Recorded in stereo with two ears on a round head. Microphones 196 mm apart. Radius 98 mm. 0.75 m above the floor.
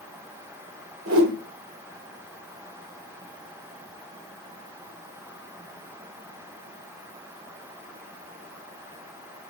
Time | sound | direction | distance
1.1 | a whoosh | 60° right (ahead or behind) | 1.8 m